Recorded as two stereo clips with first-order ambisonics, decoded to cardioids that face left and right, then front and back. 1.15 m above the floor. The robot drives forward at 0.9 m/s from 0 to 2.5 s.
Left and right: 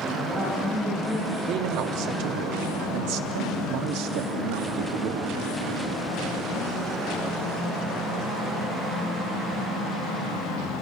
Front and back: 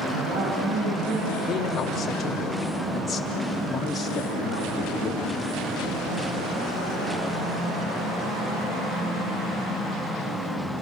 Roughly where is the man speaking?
Ahead right.